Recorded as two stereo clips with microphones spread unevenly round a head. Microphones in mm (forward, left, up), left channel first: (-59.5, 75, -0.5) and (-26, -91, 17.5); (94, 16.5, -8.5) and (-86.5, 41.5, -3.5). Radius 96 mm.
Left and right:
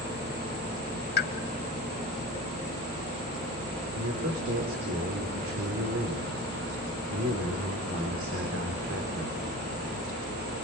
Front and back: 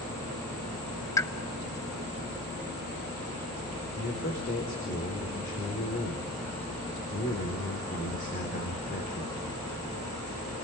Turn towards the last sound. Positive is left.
turn(degrees=-55)